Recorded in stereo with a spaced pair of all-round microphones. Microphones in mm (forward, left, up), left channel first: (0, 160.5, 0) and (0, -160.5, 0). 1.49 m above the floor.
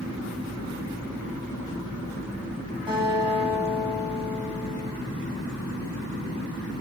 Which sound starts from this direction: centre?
A guitar, at 2.9 s.